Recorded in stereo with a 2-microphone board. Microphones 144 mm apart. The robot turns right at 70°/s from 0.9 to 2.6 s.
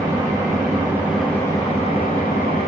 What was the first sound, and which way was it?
An engine running, 20° right.